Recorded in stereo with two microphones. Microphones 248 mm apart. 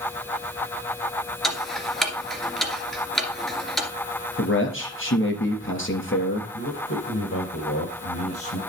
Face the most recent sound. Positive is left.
turn(degrees=65)  # may be behind; listen again after turning